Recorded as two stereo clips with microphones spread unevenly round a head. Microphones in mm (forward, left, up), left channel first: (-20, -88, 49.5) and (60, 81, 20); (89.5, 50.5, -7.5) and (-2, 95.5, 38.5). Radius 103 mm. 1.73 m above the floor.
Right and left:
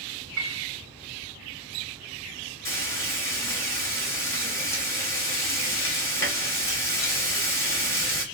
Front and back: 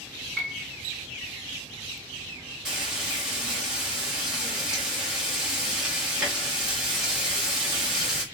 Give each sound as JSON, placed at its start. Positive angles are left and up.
{"t": 0.4, "sound": "a piano", "azimuth_deg": 75, "distance_m": 1.2}
{"t": 2.6, "sound": "frying", "azimuth_deg": -170, "distance_m": 0.8}